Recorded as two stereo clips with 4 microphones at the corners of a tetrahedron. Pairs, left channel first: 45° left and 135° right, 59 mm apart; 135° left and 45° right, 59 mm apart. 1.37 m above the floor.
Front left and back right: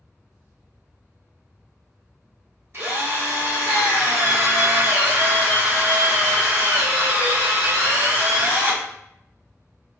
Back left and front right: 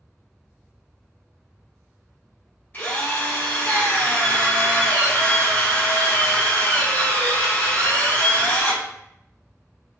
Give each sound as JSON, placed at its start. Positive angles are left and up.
{"t": 2.7, "sound": "a drill", "azimuth_deg": -175, "distance_m": 1.2}